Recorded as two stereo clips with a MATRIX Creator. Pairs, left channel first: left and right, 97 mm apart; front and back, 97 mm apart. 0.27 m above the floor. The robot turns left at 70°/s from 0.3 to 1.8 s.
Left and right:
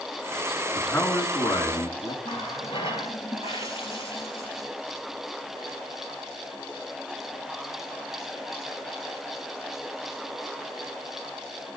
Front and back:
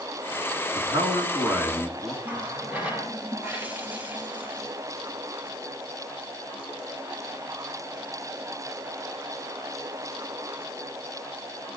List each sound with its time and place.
0.8 s a man speaking: 165° left, 3 m; by 2.1 s 90° left, 3 m
2.2 s a running tap: 105° left, 3.5 m